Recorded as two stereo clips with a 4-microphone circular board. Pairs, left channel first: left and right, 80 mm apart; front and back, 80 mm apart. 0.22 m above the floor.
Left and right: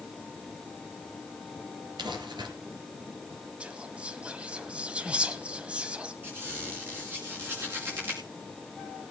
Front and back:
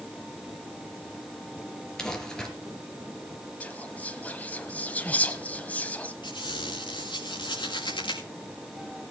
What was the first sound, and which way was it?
Crumpling, 80° right.